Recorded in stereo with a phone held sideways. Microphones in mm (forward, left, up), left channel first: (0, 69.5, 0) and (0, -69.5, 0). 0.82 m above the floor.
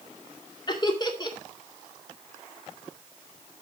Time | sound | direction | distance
0.7 | laughter | 30° left (ahead or behind) | 2 m